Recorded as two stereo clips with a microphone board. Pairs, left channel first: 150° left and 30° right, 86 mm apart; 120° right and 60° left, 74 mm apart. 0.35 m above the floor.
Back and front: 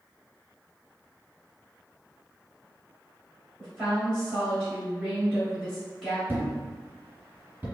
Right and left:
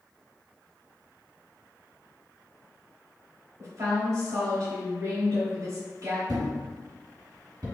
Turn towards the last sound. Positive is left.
turn(degrees=35)